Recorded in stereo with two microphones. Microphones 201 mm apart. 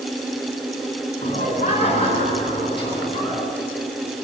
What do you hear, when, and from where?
1.2 s laughter: 35° left (ahead or behind), 5.5 m; by 3.4 s 25° left (ahead or behind), 6.5 m